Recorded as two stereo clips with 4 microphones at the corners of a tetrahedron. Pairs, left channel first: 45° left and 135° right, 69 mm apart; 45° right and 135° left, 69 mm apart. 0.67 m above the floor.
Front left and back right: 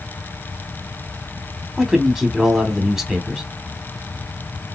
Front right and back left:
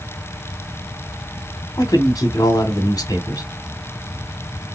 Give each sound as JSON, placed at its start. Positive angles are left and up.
{"t": 1.8, "sound": "a man speaking", "azimuth_deg": -45, "distance_m": 1.5}